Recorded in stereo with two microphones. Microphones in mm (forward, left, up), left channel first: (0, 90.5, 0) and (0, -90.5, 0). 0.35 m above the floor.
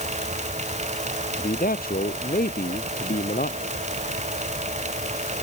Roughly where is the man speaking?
Left.